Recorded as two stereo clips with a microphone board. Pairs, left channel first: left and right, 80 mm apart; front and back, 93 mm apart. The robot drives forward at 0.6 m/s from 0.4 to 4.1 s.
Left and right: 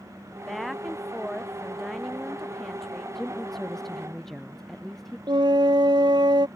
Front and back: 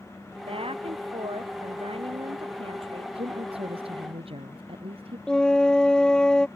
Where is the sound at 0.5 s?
Straight behind.